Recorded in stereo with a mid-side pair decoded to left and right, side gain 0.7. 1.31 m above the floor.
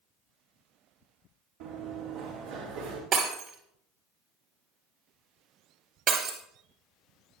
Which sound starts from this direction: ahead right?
Breaking glass, at 3.1 s.